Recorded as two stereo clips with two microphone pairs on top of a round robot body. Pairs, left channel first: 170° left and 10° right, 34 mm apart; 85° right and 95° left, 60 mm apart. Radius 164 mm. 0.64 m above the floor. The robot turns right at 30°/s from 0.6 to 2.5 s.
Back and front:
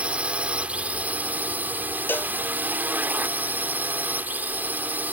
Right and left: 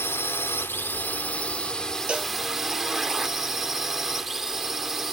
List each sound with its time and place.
0.0 s a drone: 60° right; by 5.1 s straight ahead
2.1 s a cowbell: 170° left; by 2.3 s straight behind